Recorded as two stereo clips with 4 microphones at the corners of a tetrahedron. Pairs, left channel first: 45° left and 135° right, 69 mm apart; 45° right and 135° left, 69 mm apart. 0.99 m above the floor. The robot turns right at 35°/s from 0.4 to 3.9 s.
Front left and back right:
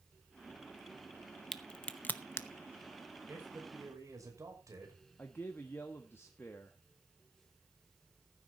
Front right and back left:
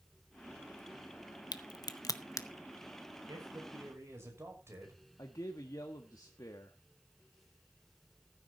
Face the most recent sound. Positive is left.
turn(degrees=-10)